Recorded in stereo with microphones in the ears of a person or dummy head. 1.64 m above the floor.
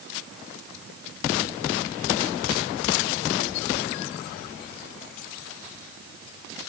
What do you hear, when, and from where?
Only background noise.